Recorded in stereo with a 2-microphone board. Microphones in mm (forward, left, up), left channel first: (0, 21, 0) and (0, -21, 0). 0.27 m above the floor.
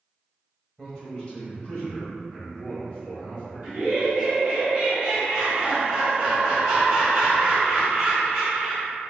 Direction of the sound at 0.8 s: 15° left (ahead or behind).